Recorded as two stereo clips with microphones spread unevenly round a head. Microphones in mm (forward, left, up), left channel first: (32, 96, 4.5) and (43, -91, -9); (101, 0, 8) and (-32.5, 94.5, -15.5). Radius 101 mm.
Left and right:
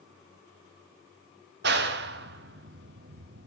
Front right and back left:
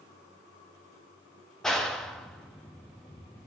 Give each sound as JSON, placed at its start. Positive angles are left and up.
{"t": 1.6, "sound": "a clap", "azimuth_deg": -125, "distance_m": 1.2}